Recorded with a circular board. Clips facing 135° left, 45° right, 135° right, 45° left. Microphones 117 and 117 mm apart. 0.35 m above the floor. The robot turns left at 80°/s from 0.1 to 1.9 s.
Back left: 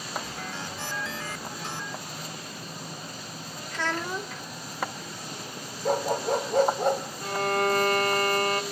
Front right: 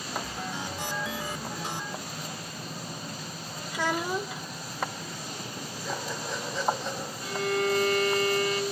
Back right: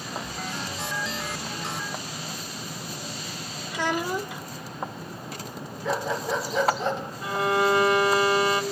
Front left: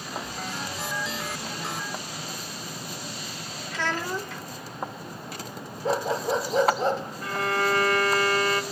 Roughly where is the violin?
Behind left.